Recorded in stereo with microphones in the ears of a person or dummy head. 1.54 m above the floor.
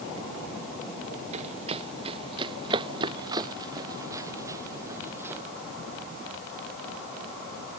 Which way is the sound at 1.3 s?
40° right (ahead or behind).